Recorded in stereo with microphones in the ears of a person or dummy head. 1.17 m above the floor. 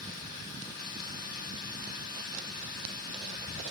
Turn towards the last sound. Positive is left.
turn(degrees=50)  # may be behind; listen again after turning